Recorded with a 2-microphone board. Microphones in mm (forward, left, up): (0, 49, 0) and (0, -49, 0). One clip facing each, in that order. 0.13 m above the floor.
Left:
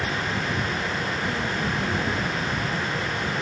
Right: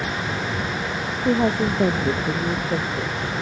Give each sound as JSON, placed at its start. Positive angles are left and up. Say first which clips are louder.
{"t": 1.2, "sound": "a woman speaking", "louder": "right 7 dB", "side_deg": -80}